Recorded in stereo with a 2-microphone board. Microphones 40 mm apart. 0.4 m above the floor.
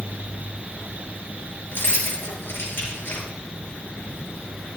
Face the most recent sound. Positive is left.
turn(degrees=70)  # may be behind; listen again after turning